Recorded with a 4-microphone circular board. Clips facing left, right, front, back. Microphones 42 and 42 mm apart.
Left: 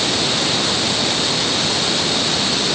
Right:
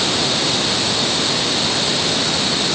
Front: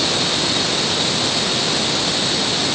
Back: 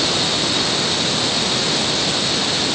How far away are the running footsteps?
No running footsteps in this recording.